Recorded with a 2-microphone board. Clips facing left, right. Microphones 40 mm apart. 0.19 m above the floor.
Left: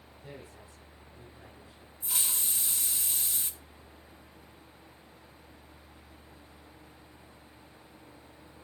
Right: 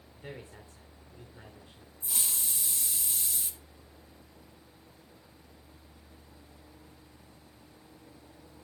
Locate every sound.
0.1 s a man speaking: 45° right (ahead or behind), 2.5 m
2.0 s a hiss: 35° left (ahead or behind), 1.4 m